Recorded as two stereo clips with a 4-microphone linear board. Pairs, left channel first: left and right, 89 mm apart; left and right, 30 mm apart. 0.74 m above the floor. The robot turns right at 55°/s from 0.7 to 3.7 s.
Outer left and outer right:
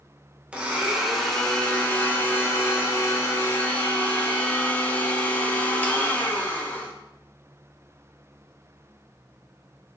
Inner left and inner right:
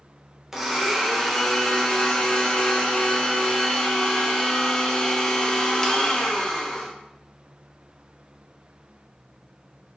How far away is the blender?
About 1.0 m.